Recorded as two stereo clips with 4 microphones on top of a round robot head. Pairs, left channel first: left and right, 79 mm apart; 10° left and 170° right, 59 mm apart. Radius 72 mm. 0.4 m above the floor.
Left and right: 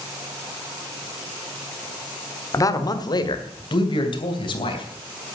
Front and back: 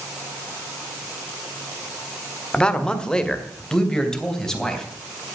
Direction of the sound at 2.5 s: 80° left.